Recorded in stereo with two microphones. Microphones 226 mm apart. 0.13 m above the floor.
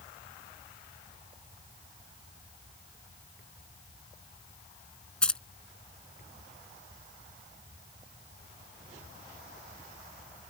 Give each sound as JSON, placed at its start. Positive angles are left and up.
{"t": 5.2, "sound": "keys jangling", "side_deg": 5}